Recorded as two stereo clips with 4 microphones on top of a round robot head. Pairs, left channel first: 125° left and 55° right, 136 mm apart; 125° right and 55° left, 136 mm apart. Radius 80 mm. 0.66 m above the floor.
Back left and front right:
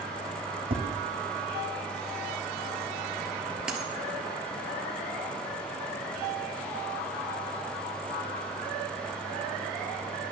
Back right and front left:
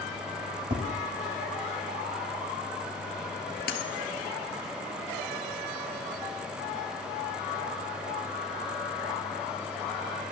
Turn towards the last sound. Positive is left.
turn(degrees=-140)